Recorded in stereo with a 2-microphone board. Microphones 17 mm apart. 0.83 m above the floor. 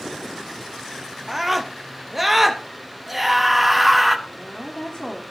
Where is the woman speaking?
55° left (ahead or behind), 1.5 m.